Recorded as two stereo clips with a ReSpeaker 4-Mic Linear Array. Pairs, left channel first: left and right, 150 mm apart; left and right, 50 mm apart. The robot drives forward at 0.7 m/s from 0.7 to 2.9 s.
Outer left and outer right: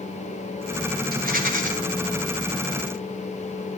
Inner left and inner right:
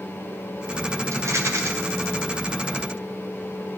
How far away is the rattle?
About 2 m.